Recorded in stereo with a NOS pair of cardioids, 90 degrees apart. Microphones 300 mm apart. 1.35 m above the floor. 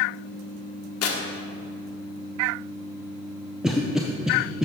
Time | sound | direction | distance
1.0 | tearing paper | 55° left | 1.4 m
3.6 | a cough | straight ahead | 0.7 m